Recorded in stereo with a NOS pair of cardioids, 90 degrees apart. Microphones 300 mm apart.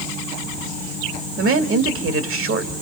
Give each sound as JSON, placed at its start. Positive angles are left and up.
{"t": 1.4, "sound": "a woman speaking", "azimuth_deg": -45, "distance_m": 2.0}